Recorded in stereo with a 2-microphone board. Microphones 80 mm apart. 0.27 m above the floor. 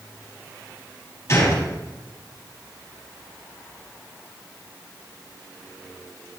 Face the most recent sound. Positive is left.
turn(degrees=40)  # may be behind; listen again after turning